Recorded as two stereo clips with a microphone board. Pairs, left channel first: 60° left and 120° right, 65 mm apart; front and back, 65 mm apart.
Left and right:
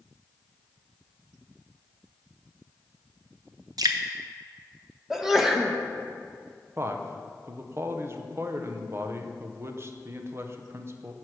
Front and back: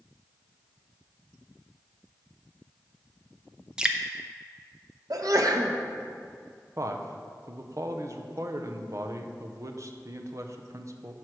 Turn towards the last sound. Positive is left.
turn(degrees=-160)